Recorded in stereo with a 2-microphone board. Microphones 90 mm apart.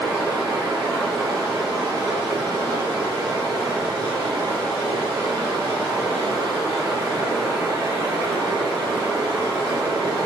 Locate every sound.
0.0 s running water: 60° right (ahead or behind), 1.5 m